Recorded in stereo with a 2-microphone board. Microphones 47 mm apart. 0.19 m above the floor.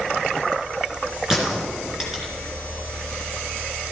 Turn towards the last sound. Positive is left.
turn(degrees=-5)  # may be behind; listen again after turning